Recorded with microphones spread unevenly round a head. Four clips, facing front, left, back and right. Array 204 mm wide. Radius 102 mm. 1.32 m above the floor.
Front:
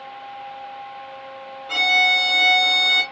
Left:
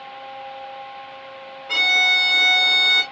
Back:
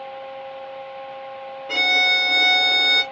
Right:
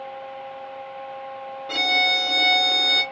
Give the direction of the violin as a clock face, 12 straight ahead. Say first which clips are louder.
Left 1 dB, front 2 dB; 4 o'clock.